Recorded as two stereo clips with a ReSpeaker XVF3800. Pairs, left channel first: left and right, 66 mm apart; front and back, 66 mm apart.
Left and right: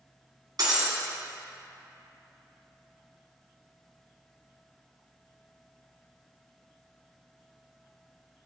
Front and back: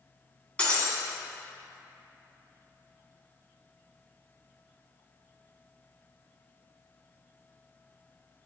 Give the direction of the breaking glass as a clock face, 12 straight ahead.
2 o'clock.